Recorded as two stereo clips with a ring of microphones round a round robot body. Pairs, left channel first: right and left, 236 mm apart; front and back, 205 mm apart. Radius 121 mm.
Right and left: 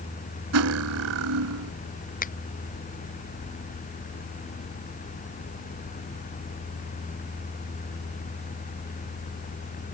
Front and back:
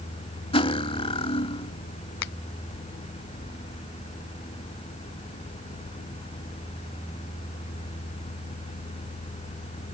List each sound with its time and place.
0.5 s cutlery clinking: 65° left
2.2 s a finger snap: 30° right